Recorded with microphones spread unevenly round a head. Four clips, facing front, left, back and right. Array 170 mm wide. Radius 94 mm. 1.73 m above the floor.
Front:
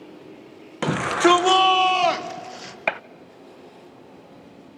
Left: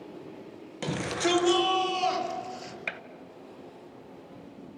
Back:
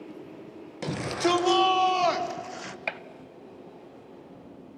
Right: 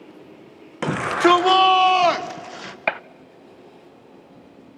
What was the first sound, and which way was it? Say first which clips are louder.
A shout: right 11 dB, front 8 dB; 40° right.